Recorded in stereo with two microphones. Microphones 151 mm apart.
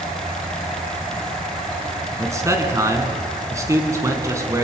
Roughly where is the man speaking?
Right.